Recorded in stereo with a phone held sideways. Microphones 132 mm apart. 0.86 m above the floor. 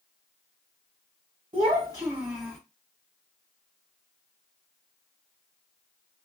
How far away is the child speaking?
About 0.9 m.